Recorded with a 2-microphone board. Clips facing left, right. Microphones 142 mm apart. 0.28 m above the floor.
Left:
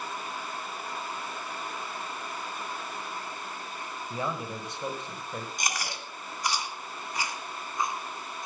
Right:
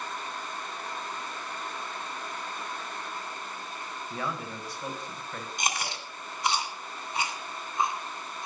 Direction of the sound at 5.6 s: 25° right (ahead or behind).